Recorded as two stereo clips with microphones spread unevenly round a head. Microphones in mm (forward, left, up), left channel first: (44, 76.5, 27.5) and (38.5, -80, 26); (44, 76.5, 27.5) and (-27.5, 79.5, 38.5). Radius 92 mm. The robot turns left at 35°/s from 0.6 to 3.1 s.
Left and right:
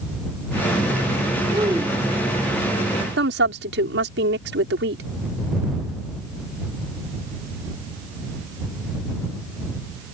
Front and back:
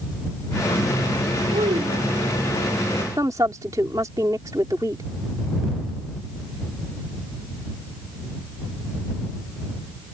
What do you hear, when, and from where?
1.5 s a child speaking: 160° right; by 2.5 s 165° left
3.2 s a woman speaking: 115° right